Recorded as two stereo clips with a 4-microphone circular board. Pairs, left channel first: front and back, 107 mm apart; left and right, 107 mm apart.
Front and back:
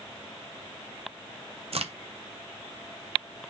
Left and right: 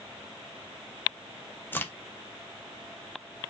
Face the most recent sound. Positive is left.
turn(degrees=160)